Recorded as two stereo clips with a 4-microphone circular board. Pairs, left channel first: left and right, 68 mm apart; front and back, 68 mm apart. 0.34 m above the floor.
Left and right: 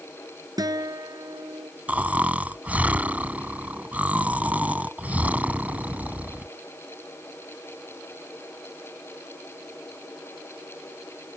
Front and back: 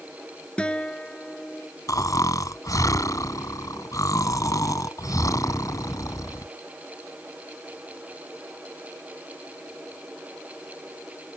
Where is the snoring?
25° right.